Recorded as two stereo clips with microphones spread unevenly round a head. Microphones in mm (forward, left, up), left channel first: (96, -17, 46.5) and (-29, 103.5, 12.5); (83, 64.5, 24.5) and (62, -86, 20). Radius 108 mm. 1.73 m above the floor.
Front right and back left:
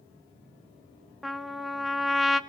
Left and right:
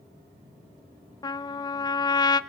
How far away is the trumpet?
About 1.2 m.